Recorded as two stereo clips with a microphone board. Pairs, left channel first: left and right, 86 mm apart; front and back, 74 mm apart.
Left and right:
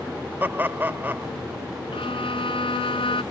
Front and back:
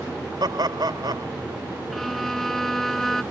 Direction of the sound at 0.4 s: 155° right.